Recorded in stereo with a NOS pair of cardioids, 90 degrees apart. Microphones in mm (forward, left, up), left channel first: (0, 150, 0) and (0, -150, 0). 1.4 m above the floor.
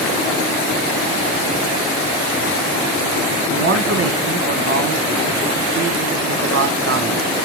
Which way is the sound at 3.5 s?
50° right.